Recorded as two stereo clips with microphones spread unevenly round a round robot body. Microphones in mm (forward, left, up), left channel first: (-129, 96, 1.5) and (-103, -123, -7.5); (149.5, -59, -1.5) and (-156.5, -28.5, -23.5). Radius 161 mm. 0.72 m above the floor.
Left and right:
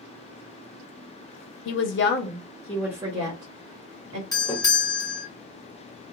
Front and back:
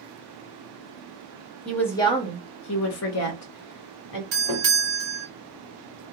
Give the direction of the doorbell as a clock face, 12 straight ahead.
6 o'clock.